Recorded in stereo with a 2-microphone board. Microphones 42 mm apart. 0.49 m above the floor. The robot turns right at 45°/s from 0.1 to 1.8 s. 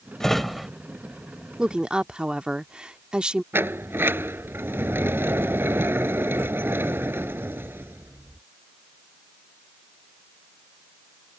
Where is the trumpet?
No trumpet in this recording.